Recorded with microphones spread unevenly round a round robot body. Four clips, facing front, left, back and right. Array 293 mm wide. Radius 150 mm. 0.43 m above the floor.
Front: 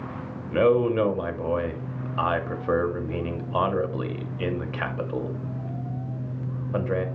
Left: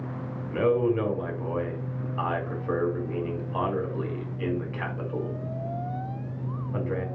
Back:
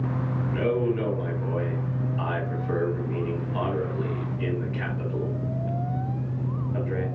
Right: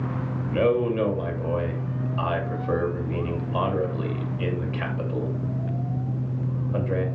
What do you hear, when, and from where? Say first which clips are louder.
0.5 s a man speaking: right 1 dB, front 6 dB; 15° right, 2.5 m